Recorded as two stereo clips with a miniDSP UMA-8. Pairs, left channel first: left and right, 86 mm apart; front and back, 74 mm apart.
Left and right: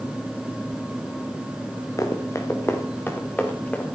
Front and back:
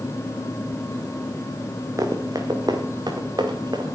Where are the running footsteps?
140° left, 2.5 m; by 3.9 s 165° left, 3.5 m.